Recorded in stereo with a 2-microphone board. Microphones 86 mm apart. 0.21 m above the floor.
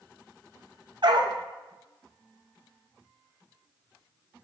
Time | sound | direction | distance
1.0 | a dog barking | 65° right (ahead or behind) | 2.5 m